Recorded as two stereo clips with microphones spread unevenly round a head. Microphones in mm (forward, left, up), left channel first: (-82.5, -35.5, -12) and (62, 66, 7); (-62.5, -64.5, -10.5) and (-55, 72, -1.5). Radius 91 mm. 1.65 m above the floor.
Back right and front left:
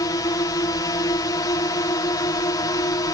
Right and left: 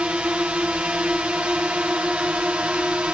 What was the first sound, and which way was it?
A drone, 165° left.